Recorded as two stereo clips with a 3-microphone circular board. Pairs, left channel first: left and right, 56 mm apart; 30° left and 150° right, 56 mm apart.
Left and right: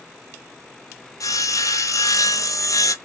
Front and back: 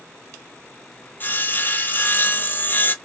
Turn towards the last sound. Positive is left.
turn(degrees=85)